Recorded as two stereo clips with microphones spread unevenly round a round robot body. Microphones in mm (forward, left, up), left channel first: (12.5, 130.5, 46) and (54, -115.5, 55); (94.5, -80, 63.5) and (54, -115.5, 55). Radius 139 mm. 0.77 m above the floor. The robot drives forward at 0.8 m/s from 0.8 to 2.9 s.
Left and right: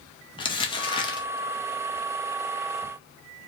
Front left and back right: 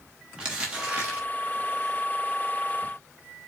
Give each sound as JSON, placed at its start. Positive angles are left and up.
{"t": 0.4, "sound": "crumpling", "azimuth_deg": 160, "distance_m": 0.9}